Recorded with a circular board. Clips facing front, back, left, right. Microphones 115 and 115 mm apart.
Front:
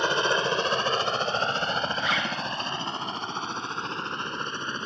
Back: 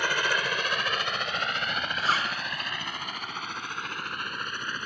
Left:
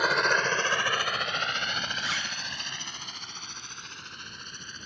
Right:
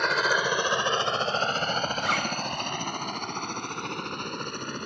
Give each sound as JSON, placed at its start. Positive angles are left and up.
{"t": 0.0, "sound": "a helicopter", "azimuth_deg": 10}
{"t": 2.0, "sound": "a zipper", "azimuth_deg": -125}